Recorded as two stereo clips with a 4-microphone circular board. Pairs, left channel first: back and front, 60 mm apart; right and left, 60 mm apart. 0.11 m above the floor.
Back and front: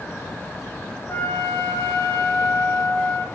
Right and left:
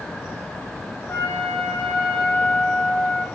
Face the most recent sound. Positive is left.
turn(degrees=-145)